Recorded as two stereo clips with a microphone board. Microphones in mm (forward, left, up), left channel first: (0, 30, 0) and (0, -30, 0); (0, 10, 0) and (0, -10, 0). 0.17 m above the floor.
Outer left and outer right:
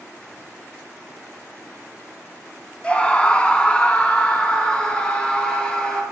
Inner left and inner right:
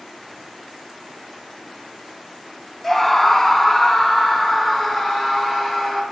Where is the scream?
15° left (ahead or behind), 1.0 m; by 6.0 s 10° left (ahead or behind), 2.5 m.